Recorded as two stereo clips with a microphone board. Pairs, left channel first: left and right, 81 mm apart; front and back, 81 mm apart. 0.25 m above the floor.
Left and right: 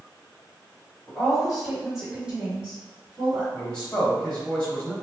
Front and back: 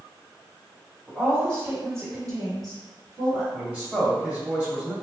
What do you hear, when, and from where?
1.1 s a woman speaking: 165° left, 1.4 m; by 3.4 s 160° right, 2 m
3.5 s a man speaking: 140° left, 1.3 m